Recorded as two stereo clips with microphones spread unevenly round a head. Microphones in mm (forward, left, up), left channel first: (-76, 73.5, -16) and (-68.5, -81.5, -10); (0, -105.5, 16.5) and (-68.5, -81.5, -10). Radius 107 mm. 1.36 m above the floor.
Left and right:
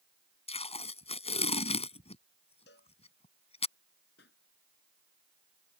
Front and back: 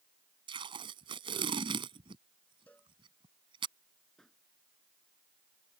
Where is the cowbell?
60° left.